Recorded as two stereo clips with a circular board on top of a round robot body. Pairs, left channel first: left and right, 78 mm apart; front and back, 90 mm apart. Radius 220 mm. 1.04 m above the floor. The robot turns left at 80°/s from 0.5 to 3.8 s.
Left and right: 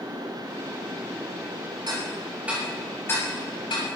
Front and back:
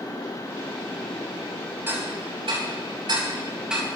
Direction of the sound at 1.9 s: 115° right.